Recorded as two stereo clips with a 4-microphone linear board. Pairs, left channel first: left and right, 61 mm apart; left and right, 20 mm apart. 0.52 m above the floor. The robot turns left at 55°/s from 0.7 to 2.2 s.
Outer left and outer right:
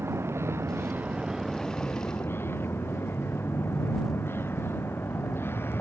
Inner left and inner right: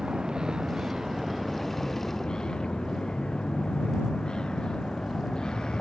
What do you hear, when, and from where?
0.0 s a vehicle: 135° right; by 5.8 s 140° left